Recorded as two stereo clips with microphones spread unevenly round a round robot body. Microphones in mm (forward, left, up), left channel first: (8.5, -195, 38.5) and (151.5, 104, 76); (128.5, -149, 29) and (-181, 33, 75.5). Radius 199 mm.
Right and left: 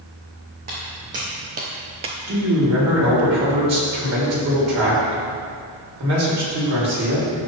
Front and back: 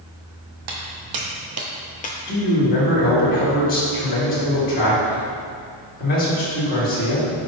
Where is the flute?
I don't hear a flute.